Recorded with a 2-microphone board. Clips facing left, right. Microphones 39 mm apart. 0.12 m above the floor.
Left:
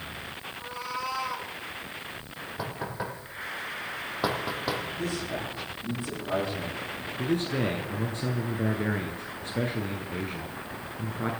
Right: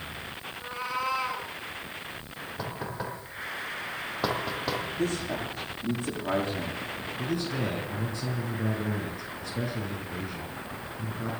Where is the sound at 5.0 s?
55° right (ahead or behind), 8 m.